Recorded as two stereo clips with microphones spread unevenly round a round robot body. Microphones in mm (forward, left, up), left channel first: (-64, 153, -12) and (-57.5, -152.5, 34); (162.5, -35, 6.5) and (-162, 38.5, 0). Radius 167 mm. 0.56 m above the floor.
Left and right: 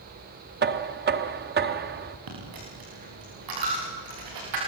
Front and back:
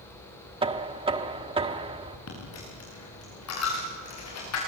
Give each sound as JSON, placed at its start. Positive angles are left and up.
{"t": 0.6, "sound": "knocking", "azimuth_deg": -135, "distance_m": 0.8}
{"t": 2.3, "sound": "a dropped coin", "azimuth_deg": -60, "distance_m": 9.0}